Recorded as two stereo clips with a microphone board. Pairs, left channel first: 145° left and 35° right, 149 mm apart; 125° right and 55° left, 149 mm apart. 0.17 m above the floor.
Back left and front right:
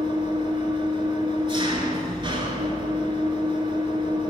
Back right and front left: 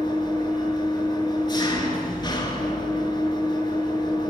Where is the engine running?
75° right, 0.9 m.